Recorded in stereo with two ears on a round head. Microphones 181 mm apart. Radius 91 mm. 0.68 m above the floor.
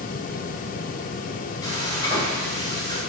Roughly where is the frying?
Centre.